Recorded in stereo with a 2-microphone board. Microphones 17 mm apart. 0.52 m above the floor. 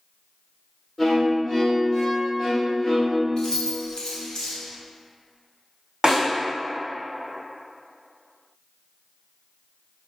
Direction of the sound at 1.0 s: 15° left (ahead or behind).